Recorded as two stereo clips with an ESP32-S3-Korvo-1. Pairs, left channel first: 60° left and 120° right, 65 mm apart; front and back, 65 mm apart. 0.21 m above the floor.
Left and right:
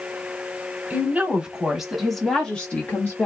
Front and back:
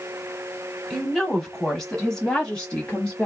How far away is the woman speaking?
About 1.3 m.